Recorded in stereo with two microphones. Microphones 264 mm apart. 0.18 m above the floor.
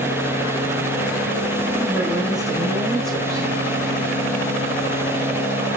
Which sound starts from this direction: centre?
A man speaking, at 1.8 s.